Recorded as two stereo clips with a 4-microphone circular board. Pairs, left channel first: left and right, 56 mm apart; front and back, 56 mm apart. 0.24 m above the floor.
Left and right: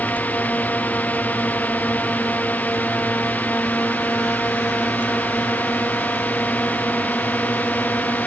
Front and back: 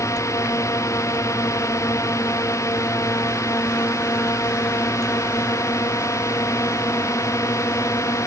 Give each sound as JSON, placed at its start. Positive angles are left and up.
{"t": 0.0, "sound": "a drone", "azimuth_deg": 30}